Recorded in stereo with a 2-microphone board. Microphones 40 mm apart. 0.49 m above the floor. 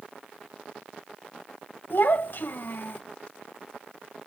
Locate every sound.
1.9 s a child speaking: 60° left (ahead or behind), 1.6 m